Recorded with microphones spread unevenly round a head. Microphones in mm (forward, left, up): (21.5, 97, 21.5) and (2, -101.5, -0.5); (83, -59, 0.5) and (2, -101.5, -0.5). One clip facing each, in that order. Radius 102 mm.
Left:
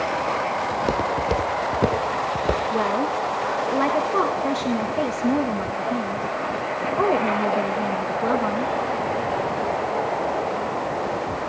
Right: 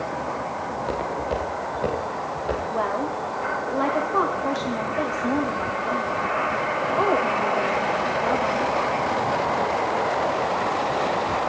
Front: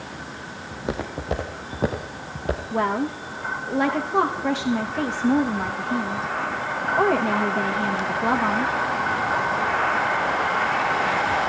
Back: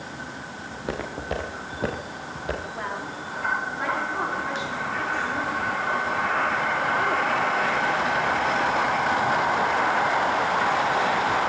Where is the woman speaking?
25° left, 3 m.